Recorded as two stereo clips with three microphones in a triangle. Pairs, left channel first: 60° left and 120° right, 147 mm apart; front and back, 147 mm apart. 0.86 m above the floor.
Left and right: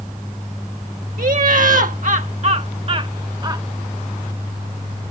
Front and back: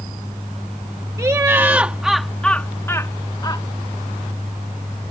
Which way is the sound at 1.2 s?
115° right.